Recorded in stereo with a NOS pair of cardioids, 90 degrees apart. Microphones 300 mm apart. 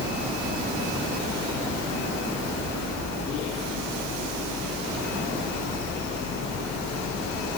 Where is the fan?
60° left.